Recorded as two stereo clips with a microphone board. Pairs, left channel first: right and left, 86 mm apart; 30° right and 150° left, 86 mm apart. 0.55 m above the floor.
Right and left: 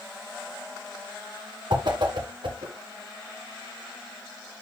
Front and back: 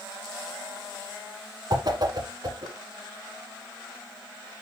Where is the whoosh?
110° left, 1.5 m.